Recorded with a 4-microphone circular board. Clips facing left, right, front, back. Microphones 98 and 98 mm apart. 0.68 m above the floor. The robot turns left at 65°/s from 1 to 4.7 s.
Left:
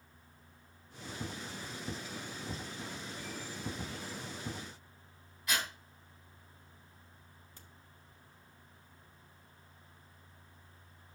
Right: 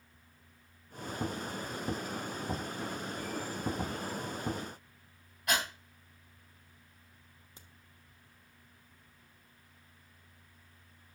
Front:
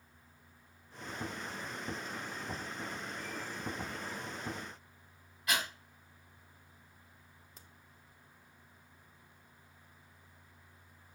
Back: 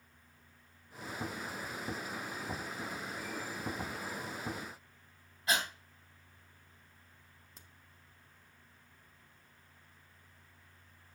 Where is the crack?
90° right, 1.1 m.